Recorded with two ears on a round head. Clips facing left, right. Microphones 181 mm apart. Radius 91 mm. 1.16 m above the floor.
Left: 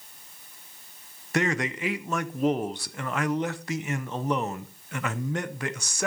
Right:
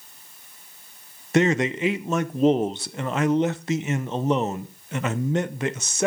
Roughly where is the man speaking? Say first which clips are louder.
Right 7 dB; right.